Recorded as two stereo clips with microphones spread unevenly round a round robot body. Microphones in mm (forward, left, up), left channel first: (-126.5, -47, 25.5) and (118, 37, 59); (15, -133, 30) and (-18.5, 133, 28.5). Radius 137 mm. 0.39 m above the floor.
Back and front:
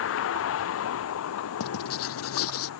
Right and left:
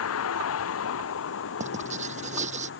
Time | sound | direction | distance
0.0 | a vehicle | 120° right | ?
1.6 | writing | 160° left | ?